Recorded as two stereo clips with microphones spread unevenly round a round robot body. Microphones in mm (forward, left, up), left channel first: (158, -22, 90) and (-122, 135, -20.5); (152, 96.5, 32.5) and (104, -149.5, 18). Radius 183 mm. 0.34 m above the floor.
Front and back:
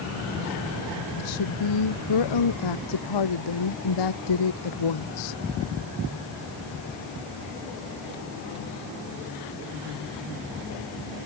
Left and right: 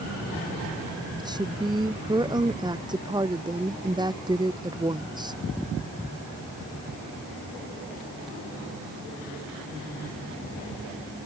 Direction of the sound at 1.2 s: 30° right.